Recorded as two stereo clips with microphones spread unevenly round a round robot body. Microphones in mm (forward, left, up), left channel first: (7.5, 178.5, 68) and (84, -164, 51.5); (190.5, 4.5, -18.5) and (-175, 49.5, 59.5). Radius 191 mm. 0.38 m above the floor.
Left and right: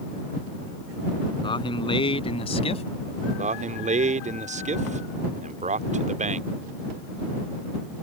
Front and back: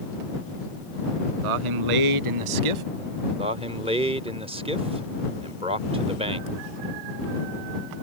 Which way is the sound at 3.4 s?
105° right.